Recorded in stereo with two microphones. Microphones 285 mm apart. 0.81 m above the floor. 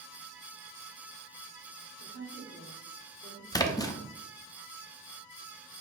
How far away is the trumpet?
No trumpet in this recording.